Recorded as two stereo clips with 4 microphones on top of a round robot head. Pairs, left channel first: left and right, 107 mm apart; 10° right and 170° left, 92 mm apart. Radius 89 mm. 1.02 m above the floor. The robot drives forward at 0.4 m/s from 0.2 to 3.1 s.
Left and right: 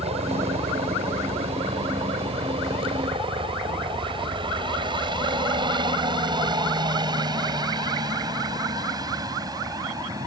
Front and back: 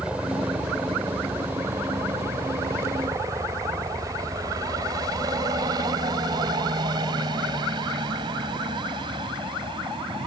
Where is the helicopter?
110° right; by 10.3 s 145° right.